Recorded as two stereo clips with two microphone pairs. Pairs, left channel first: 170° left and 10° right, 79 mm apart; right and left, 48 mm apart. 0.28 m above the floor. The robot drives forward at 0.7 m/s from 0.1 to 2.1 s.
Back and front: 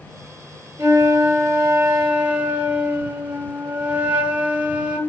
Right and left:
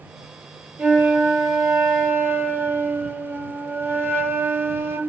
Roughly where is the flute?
Ahead left.